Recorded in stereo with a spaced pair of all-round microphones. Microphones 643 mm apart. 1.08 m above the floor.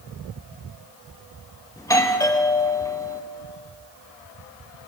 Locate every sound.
1.8 s a doorbell: 5° left (ahead or behind), 1.4 m